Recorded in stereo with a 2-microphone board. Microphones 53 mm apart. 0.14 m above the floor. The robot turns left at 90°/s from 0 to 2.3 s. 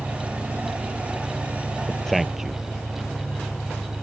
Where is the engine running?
50° left; by 4.0 s 155° right.